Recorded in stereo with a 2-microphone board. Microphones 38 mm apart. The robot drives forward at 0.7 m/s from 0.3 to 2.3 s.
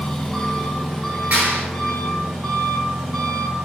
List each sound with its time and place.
0.0 s an engine running: 20° left (ahead or behind), 1.0 m; by 3.7 s 10° left (ahead or behind), 2.5 m
1.3 s a clap: 45° right (ahead or behind), 1.9 m; by 1.7 s 50° right (ahead or behind), 1.8 m